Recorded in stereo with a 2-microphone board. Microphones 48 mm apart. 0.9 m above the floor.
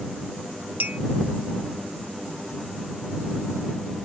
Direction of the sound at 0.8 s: 40° right (ahead or behind).